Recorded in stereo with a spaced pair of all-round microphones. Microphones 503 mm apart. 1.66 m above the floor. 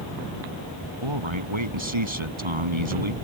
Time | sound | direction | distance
1.0 | a man speaking | 70° right (ahead or behind) | ?